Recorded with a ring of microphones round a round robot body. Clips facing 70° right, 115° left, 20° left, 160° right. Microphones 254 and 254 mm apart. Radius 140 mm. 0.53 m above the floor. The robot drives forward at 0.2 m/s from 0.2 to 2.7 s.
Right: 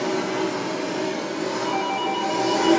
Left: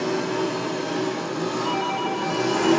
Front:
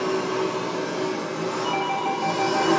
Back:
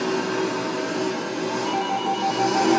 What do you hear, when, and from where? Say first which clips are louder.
0.0 s an engine running: even, back 1 dB; straight behind, 1.8 m
1.6 s a doorbell: even, back 1 dB; 15° left, 1.2 m; by 2.8 s 20° left, 1.1 m